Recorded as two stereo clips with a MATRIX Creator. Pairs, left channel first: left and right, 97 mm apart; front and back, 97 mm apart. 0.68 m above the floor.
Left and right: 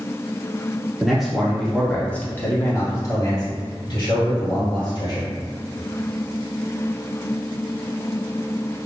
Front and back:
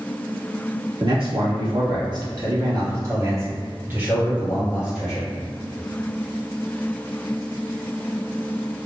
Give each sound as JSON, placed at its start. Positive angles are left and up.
{"t": 1.0, "sound": "a man speaking", "azimuth_deg": -175, "distance_m": 1.7}